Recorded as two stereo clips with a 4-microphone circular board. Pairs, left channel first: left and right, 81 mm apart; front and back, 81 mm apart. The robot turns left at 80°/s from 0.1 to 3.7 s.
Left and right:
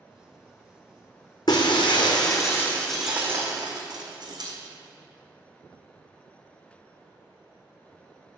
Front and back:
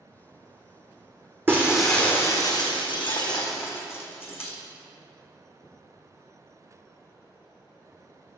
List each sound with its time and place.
1.5 s breaking glass: 120° left, 1.3 m; by 4.5 s 60° right, 1.3 m